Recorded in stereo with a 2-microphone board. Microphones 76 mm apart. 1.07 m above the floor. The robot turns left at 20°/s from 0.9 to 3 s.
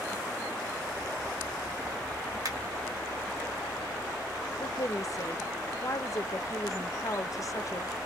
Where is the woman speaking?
45° left (ahead or behind), 0.6 m.